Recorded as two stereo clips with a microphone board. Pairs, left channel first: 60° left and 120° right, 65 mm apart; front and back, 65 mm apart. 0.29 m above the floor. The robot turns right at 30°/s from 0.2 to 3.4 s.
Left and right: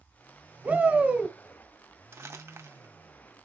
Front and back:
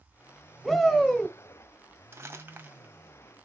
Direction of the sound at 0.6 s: 85° right.